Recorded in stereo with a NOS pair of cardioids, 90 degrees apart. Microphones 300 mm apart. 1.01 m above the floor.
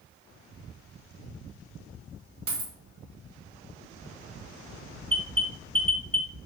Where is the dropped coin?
70° right, 1.0 m.